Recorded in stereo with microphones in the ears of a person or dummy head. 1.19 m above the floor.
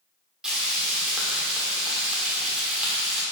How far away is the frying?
About 1.5 m.